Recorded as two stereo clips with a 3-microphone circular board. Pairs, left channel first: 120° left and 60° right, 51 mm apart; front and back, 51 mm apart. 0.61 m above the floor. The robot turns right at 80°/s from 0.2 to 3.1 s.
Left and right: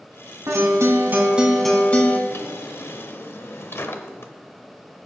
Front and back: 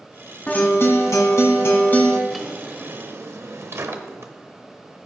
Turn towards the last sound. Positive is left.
turn(degrees=150)